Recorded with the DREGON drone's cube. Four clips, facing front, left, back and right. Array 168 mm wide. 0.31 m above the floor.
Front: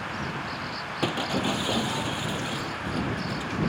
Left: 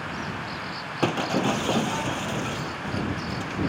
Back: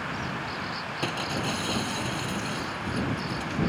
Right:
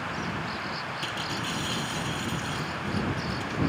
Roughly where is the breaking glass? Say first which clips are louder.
Left 14 dB, front 4 dB; left.